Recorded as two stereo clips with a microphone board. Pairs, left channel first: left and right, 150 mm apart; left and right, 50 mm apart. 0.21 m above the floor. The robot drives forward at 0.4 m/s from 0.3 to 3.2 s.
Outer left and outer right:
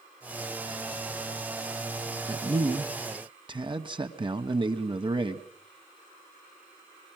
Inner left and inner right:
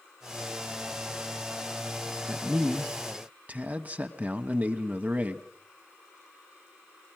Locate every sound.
2.3 s a man speaking: 30° right (ahead or behind), 1.4 m; by 5.5 s 35° right (ahead or behind), 1.3 m